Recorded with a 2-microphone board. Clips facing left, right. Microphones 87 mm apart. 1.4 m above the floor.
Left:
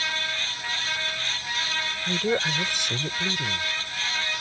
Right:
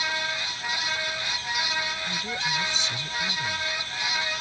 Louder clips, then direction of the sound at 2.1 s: Left 6 dB; 60° left (ahead or behind).